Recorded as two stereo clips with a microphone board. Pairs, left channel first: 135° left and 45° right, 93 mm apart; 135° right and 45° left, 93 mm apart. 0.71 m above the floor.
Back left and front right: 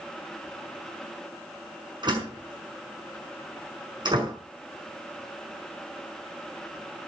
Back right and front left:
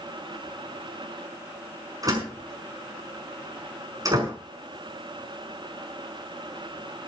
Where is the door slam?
5° right, 5.5 m.